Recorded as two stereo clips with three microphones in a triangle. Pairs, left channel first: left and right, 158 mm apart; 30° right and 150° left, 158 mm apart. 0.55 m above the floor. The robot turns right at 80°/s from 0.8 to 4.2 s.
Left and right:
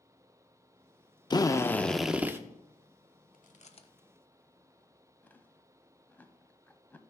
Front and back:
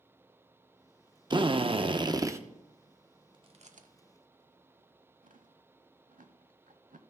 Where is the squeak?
I don't hear a squeak.